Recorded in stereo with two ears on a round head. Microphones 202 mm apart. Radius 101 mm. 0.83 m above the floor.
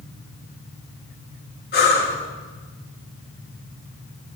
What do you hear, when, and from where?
1.7 s breathing: 45° left (ahead or behind), 3 m